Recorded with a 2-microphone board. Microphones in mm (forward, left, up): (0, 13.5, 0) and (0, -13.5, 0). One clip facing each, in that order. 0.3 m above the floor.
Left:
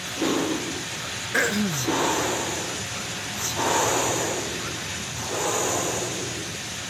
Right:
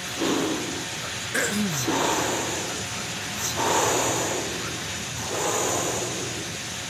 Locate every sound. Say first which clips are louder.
1.3 s throat clearing: left 2 dB; 15° left (ahead or behind), 0.6 m